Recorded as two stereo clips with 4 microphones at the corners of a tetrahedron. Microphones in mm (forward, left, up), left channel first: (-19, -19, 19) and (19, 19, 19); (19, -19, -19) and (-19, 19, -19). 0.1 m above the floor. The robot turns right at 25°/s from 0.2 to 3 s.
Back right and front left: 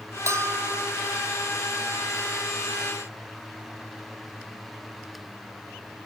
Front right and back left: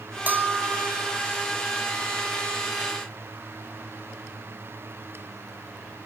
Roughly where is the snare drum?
I don't hear a snare drum.